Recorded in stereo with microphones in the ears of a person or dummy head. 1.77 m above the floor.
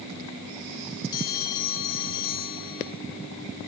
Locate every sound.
1.1 s a bell: 25° left (ahead or behind), 3 m